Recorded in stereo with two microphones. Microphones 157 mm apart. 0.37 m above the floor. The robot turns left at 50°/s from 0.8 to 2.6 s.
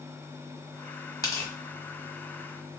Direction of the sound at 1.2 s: 25° left (ahead or behind).